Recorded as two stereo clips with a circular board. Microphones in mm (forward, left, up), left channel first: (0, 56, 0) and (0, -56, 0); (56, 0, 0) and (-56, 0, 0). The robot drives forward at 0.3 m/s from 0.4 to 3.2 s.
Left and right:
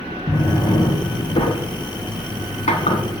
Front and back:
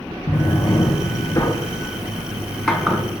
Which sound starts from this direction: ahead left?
A drawer, at 0.3 s.